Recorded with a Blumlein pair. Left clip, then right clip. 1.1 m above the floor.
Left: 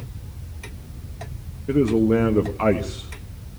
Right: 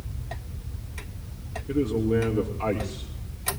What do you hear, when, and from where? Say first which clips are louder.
1.7 s a man speaking: left 6 dB; 50° left, 1.2 m